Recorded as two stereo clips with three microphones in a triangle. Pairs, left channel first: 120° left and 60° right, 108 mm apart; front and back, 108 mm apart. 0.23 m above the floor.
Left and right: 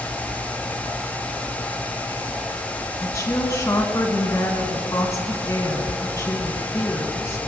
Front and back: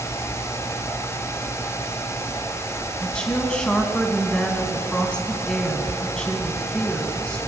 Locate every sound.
3.0 s a woman speaking: 75° left, 2 m